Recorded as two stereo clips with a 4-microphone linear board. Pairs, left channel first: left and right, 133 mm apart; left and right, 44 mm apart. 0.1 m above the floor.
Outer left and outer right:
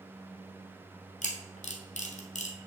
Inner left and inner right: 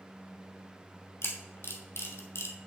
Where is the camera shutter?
70° left (ahead or behind), 1.5 m.